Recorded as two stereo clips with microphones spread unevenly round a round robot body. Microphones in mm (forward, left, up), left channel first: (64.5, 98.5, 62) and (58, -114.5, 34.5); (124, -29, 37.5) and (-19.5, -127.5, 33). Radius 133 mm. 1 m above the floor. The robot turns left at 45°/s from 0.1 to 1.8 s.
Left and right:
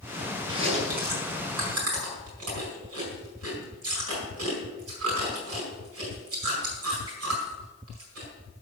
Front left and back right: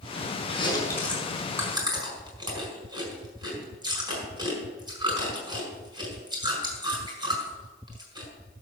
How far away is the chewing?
About 5 m.